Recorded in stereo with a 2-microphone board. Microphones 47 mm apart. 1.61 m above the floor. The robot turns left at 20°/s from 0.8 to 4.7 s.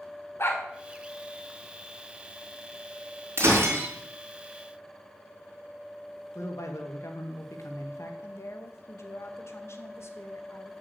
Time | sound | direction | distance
0.4 | a dog barking | 55° left (ahead or behind) | 2 m
3.4 | breaking glass | 55° right (ahead or behind) | 4 m
6.3 | a man speaking | 75° left (ahead or behind) | 1.9 m
8.2 | a woman speaking | 55° left (ahead or behind) | 1.5 m